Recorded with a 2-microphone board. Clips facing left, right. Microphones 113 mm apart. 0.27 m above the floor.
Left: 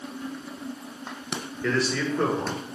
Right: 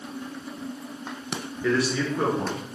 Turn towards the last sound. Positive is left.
turn(degrees=-10)  # may be behind; listen again after turning